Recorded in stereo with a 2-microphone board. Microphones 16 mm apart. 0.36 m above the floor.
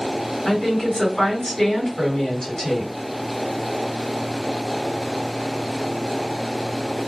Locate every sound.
0.5 s a woman speaking: 50° left (ahead or behind), 2 m